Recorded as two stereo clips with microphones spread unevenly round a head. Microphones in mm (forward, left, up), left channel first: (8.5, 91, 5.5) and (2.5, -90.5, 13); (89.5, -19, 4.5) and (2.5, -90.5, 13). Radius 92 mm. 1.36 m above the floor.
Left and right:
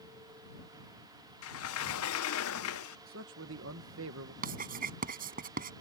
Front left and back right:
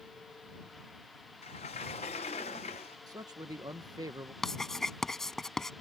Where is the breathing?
I don't hear breathing.